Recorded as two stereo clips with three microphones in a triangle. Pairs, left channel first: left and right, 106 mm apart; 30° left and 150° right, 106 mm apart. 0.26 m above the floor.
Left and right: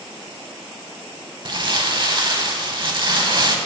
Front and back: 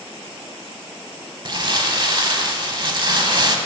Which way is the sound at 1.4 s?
120° right.